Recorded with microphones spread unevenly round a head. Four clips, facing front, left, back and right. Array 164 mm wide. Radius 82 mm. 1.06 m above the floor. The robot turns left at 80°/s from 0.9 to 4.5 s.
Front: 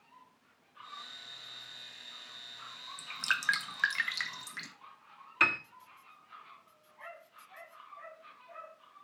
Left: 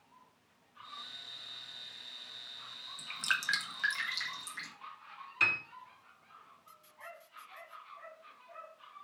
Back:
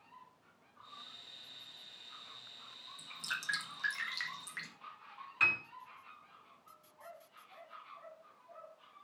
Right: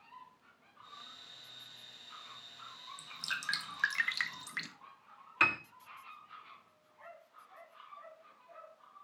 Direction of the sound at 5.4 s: 40° right.